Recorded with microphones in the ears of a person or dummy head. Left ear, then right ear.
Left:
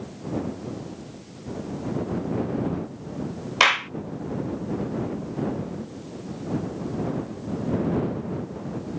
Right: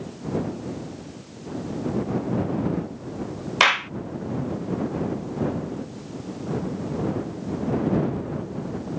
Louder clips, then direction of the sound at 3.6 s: Even; 5° left (ahead or behind).